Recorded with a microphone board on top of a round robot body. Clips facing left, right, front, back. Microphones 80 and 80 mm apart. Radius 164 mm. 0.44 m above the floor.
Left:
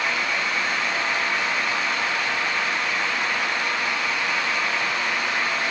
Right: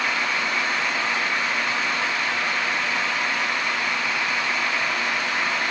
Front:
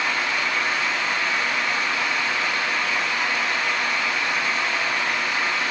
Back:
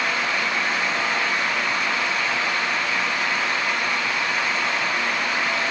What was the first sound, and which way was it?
Only background noise.